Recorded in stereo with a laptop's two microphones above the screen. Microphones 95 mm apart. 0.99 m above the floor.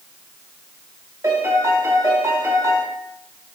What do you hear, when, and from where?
1.2 s a piano: 30° right (ahead or behind), 1.8 m